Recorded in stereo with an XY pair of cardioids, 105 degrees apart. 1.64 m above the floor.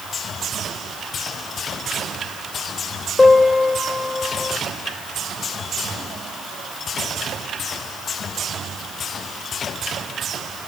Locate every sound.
3.2 s a piano: 30° left, 3 m